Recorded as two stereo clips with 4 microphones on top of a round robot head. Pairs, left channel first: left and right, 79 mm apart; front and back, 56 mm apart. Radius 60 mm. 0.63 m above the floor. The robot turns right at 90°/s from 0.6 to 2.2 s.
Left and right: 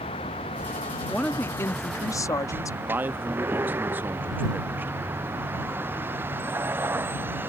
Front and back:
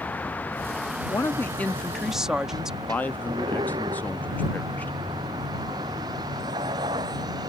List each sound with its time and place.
0.0 s a vehicle: 60° left; by 7.5 s 155° right
1.1 s a woman speaking: 5° left; by 2.8 s 105° left
2.9 s a man speaking: 40° right